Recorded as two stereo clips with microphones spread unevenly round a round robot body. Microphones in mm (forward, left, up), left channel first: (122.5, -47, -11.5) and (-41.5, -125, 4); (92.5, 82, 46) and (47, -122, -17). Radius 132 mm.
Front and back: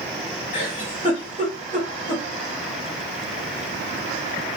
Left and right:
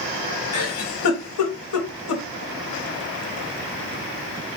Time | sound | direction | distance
0.5 | a giggle | 95° left | 0.9 m